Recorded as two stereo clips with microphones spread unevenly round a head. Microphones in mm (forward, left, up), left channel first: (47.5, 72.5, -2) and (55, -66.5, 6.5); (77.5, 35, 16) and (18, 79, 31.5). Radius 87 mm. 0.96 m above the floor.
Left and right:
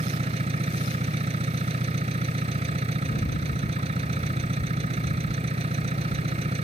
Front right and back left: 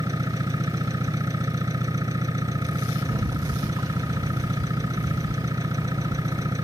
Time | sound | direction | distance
0.0 | an engine running | 145° right | ?
3.0 | a rattle | 95° left | ?